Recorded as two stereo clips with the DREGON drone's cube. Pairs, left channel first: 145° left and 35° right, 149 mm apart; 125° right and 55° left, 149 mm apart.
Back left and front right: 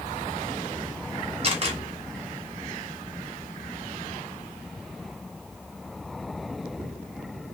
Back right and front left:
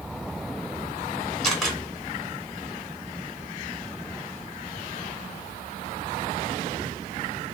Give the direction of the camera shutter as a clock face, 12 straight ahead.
1 o'clock.